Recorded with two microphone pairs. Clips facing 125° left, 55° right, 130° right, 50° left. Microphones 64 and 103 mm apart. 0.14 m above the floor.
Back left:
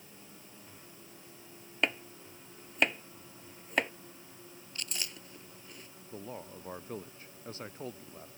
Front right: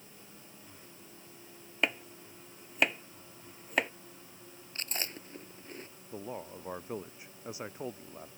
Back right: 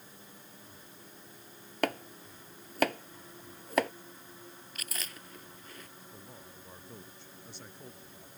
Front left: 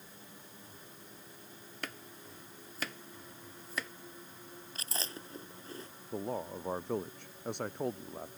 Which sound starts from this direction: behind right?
Chopping, at 1.8 s.